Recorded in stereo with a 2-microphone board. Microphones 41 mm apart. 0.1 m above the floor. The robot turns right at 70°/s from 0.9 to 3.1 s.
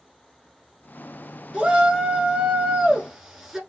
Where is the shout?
20° right (ahead or behind), 1.1 m; by 3.6 s 10° right (ahead or behind), 1.1 m.